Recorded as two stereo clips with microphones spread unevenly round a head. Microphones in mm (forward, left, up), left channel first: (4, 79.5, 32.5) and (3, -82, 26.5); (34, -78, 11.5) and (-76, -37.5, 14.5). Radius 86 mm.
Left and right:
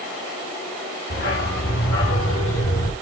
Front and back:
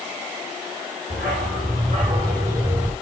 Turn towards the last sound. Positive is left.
turn(degrees=80)